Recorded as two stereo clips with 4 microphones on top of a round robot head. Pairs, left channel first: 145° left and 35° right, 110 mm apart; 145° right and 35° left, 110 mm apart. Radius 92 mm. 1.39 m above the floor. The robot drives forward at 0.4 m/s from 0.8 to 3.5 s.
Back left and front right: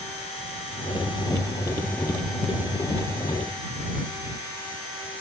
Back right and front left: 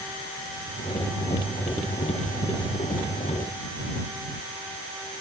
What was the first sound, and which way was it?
Only background noise.